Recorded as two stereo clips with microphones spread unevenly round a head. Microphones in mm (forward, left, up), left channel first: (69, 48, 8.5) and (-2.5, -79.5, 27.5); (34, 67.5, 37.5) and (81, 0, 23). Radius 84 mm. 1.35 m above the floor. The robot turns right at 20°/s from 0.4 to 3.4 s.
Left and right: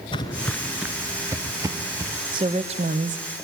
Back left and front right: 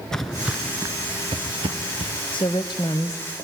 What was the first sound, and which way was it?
Footsteps, 85° left.